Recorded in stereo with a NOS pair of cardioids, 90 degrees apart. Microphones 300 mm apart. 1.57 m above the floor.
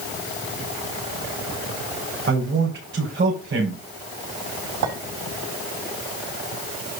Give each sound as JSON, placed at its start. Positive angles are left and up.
{"t": 2.3, "sound": "a man speaking", "azimuth_deg": -40, "distance_m": 5.5}
{"t": 4.8, "sound": "a clink", "azimuth_deg": -65, "distance_m": 5.5}